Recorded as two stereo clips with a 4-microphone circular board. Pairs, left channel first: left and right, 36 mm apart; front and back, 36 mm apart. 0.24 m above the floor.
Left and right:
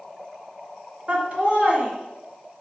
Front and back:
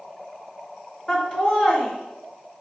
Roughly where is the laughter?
Ahead right.